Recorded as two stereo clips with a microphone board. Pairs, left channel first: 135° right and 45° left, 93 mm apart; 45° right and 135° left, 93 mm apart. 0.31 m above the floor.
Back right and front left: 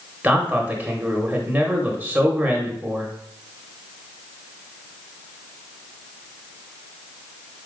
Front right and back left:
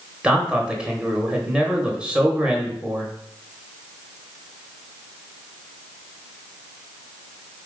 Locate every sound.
0.2 s a man speaking: 75° left, 1.0 m